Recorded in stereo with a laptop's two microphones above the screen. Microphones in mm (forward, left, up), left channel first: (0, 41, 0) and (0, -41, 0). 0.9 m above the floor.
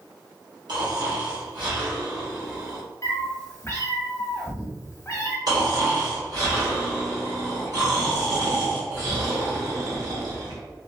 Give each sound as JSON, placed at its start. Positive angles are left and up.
{"t": 0.7, "sound": "snoring", "side_deg": -65, "distance_m": 0.9}
{"t": 3.0, "sound": "a cat meowing", "side_deg": 35, "distance_m": 0.6}
{"t": 5.5, "sound": "snoring", "side_deg": -55, "distance_m": 1.7}